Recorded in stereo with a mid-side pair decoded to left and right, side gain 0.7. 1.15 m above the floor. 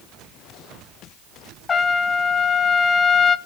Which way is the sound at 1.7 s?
30° left.